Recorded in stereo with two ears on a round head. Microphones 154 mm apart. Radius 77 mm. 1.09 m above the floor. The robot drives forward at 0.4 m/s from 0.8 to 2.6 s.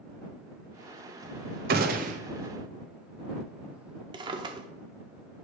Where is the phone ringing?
I don't hear a phone ringing.